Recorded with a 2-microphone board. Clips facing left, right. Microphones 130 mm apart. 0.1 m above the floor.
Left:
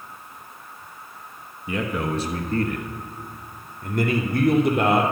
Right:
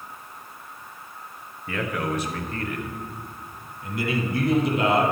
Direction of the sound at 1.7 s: 15° left (ahead or behind).